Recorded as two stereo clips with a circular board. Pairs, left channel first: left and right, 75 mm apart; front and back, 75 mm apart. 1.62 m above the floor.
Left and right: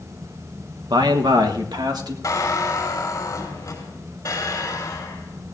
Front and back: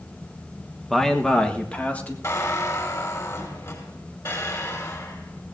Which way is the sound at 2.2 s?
45° left.